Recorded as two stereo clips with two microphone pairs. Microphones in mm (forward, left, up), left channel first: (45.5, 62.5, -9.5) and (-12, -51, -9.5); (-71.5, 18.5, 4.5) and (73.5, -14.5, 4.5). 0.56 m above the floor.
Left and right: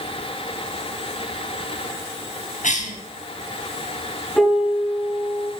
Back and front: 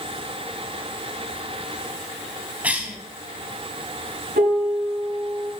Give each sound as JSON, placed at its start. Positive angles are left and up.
{"t": 2.6, "sound": "a cough", "azimuth_deg": 70, "distance_m": 4.0}
{"t": 4.4, "sound": "a piano", "azimuth_deg": -15, "distance_m": 7.0}